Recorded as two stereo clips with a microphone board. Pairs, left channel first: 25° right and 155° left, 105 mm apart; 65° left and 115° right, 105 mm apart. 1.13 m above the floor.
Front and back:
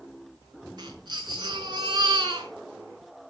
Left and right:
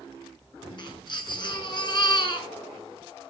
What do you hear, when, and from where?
0.8 s a baby crying: 110° left, 5.5 m